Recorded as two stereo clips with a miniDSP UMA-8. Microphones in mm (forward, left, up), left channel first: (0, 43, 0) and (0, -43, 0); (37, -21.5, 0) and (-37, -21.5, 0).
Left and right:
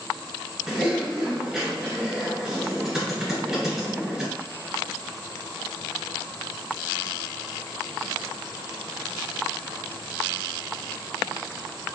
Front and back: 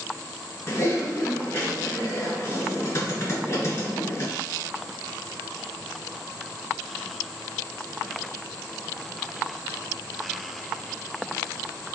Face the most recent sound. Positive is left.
turn(degrees=-15)